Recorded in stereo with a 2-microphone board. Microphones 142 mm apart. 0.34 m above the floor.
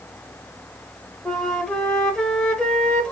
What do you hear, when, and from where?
1.2 s a flute: 5° left (ahead or behind), 0.8 m